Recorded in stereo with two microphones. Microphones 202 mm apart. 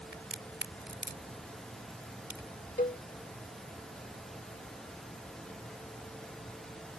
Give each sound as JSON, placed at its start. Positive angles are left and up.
{"t": 0.1, "sound": "a crack", "side_deg": -65}
{"t": 2.8, "sound": "a cowbell", "side_deg": 45}